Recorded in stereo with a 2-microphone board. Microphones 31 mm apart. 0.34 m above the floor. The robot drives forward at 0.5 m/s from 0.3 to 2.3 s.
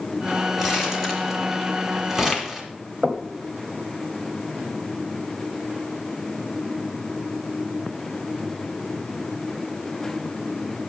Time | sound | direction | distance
0.6 | crumpling | 10° right (ahead or behind) | 3 m
3.0 | knocking | 30° right (ahead or behind) | 1.2 m